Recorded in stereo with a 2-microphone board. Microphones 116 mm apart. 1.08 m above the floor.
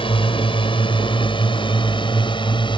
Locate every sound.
0.0 s a drone: 50° left (ahead or behind); by 2.8 s 45° left (ahead or behind)